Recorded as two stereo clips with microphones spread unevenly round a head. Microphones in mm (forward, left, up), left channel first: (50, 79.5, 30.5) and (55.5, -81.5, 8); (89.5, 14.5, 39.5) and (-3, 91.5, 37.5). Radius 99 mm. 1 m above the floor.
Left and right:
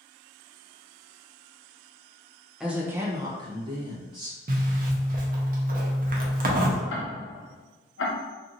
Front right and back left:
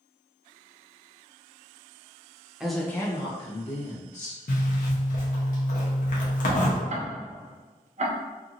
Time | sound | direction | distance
2.6 | a woman speaking | 150° right | 0.6 m
4.5 | a zipper | 55° right | 0.7 m
6.9 | ticking | 115° left | 0.6 m